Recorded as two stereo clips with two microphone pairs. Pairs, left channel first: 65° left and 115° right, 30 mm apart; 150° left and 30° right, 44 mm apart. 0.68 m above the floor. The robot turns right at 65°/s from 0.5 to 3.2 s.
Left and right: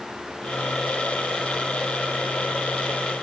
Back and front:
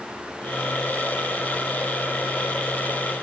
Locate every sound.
Only background noise.